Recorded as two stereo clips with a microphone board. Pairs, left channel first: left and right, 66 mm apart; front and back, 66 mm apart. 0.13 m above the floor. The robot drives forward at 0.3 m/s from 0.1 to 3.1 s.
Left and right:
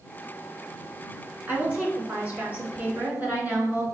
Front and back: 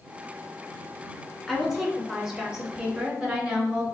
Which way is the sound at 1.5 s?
100° right.